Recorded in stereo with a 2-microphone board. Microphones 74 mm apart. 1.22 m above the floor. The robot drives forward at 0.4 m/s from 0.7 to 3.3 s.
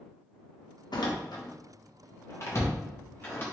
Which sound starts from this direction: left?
A door slam, at 0.9 s.